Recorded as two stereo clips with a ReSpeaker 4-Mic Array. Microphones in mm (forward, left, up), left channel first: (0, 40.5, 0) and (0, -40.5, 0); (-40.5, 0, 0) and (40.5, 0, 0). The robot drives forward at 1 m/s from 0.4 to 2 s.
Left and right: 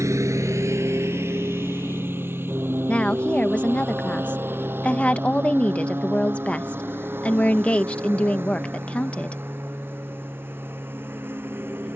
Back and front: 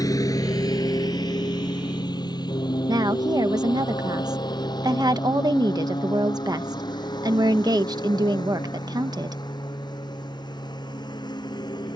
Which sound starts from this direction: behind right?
A lawn mower, at 0.0 s.